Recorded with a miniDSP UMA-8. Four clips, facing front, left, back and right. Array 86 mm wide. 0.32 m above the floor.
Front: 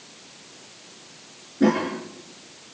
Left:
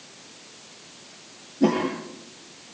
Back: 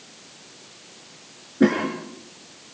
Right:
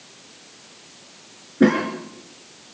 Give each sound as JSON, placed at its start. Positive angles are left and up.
{"t": 1.6, "sound": "a cough", "azimuth_deg": -115, "distance_m": 5.5}